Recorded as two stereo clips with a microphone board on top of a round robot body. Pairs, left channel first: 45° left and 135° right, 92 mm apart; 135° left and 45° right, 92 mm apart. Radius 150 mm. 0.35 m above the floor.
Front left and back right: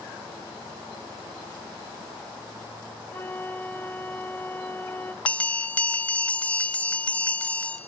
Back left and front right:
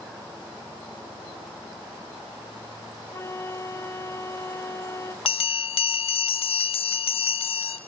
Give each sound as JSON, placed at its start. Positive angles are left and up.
{"t": 3.1, "sound": "a flute", "azimuth_deg": 95, "distance_m": 1.3}
{"t": 5.2, "sound": "a bell", "azimuth_deg": 120, "distance_m": 0.7}